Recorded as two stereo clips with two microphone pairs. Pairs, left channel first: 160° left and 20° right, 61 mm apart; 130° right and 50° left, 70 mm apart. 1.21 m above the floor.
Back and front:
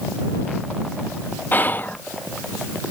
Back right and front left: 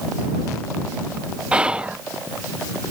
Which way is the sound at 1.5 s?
120° left.